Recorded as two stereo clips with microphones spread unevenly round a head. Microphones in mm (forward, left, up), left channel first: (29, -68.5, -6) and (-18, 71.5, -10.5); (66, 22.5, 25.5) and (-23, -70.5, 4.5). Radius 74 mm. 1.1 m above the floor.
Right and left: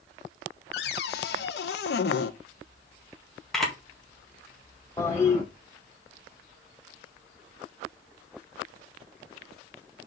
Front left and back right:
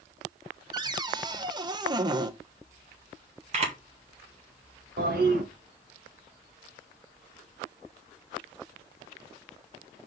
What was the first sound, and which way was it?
A cupboard door, 85° right.